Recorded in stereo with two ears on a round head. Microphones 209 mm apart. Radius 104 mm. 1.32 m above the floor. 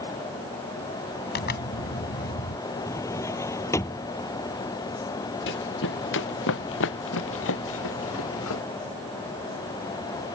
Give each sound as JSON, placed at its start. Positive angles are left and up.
{"t": 1.4, "sound": "a zipper", "side_deg": 45}
{"t": 2.9, "sound": "a drawer", "side_deg": 15}
{"t": 5.5, "sound": "running footsteps", "side_deg": 55}